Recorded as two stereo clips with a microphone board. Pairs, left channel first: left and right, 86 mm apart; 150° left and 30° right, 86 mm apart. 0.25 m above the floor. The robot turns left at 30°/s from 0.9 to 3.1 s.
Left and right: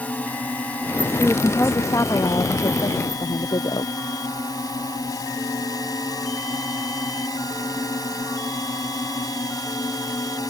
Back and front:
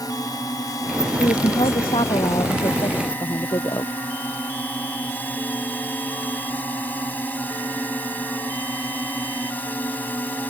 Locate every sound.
0.0 s a drone: 155° left; by 10.5 s 90° left
1.2 s a woman speaking: 165° left; by 4.0 s 110° left